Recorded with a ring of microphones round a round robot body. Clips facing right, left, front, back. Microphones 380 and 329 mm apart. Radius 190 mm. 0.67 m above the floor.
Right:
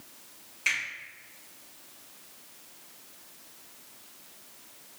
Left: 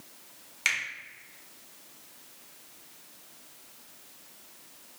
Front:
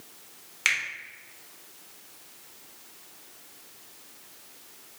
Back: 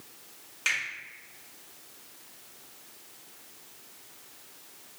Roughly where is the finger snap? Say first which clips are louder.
Even, front 2 dB; ahead left.